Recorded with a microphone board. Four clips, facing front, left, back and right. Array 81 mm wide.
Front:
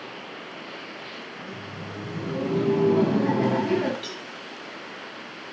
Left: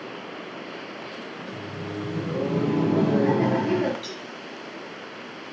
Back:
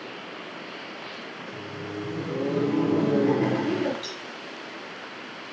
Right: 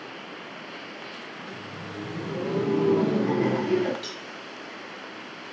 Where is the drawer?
No drawer in this recording.